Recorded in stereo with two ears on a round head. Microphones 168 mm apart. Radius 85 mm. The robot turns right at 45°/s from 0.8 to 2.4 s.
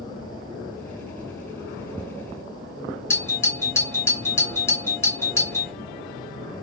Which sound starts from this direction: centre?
A doorbell, at 3.1 s.